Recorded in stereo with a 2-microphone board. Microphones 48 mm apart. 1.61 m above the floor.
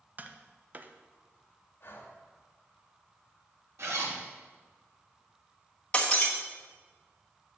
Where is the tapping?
35° right (ahead or behind), 0.5 m.